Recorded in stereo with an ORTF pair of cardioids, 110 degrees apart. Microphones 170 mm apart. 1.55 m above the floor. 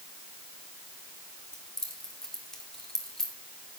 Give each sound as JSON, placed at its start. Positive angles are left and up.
{"t": 1.5, "sound": "keys jangling", "azimuth_deg": 0, "distance_m": 2.5}